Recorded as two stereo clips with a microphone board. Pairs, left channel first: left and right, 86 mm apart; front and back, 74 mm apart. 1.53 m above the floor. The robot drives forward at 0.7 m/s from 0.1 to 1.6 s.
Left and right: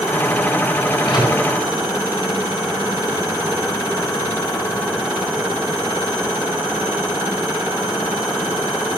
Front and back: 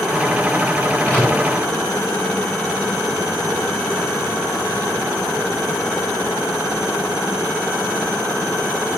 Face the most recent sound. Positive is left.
turn(degrees=65)